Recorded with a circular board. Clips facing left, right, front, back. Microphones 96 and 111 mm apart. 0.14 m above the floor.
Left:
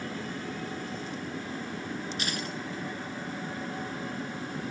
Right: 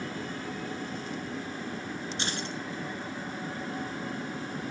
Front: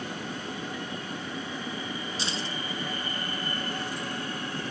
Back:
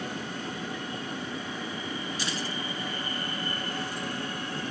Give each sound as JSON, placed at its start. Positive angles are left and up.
{"t": 2.2, "sound": "keys jangling", "azimuth_deg": -45, "distance_m": 1.1}